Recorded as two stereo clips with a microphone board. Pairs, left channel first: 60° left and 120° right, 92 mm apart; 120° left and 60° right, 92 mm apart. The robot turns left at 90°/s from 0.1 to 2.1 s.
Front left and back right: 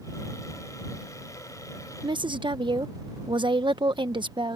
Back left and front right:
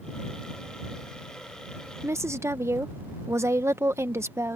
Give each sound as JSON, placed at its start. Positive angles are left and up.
{"t": 2.0, "sound": "a woman speaking", "azimuth_deg": -110}